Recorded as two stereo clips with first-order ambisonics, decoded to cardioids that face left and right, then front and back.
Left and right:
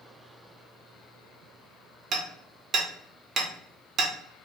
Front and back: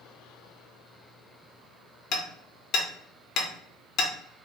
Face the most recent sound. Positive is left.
turn(degrees=-35)